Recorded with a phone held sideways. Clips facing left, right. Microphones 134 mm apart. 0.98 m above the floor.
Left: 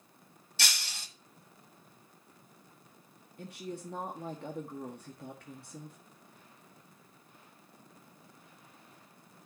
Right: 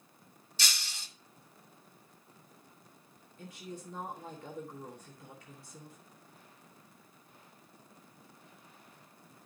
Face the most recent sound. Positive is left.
turn(degrees=60)  # may be behind; listen again after turning